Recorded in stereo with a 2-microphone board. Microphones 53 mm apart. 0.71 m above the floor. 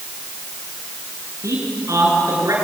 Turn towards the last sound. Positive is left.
turn(degrees=-80)